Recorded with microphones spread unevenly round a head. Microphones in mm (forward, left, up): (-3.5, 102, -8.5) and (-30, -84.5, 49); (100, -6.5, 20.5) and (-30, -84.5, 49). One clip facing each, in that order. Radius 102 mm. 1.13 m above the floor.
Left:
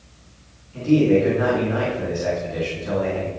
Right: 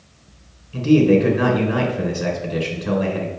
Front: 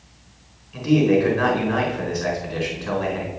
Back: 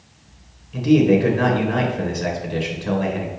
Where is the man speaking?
95° right, 4 m.